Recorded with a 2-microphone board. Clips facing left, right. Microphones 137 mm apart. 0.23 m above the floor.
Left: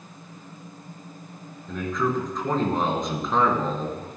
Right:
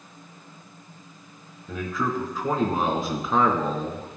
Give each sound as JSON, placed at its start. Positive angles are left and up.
{"t": 1.7, "sound": "a man speaking", "side_deg": -5, "distance_m": 3.0}